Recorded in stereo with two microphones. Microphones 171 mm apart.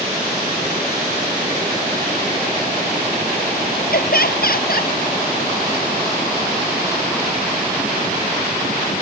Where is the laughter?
70° left (ahead or behind).